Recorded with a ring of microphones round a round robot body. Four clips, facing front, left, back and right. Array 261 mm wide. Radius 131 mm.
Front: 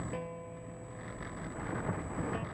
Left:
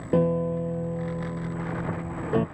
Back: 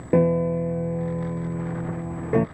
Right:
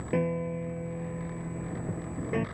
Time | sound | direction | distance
0.1 | a piano | 160° left | ?